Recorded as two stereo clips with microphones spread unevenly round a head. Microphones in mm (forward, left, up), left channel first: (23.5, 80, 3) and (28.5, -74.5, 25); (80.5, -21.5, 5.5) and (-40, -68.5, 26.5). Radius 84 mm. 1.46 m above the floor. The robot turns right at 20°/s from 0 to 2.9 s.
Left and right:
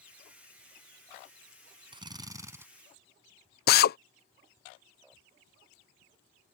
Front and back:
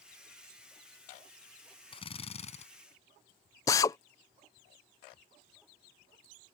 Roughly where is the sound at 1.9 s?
Ahead right.